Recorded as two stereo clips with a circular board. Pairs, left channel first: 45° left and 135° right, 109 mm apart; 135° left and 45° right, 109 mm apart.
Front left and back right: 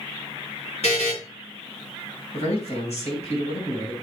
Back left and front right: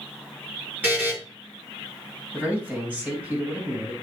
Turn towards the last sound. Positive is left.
turn(degrees=30)